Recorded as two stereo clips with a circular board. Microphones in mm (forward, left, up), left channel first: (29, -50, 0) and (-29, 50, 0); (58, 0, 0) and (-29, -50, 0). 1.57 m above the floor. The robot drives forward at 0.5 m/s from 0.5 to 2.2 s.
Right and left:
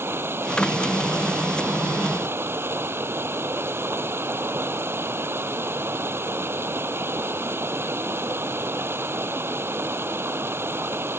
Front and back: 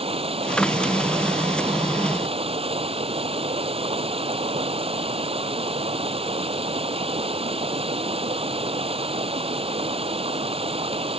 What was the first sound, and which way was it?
Running water, 170° right.